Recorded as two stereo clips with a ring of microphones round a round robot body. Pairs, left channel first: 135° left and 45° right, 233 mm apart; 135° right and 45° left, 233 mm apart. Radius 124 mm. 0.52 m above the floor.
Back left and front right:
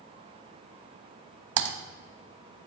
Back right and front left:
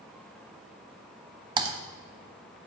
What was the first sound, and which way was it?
Typing on a keyboard, 25° right.